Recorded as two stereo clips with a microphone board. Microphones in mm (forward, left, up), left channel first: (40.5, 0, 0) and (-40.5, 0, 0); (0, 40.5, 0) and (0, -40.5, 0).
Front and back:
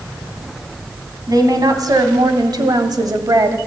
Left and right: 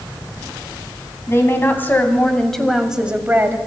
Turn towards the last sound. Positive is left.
turn(degrees=-145)